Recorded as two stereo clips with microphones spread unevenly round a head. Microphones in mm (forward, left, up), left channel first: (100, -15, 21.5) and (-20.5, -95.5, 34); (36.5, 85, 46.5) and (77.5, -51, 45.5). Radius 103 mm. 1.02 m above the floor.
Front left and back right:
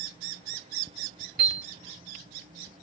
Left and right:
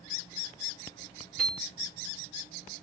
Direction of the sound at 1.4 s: 165° right.